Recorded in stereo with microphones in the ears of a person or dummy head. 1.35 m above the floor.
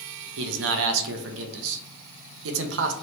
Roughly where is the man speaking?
Right.